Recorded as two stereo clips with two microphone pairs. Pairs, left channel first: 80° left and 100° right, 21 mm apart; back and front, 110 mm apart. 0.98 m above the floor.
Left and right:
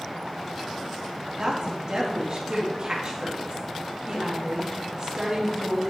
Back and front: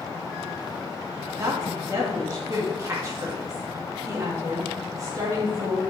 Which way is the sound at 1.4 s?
55° right.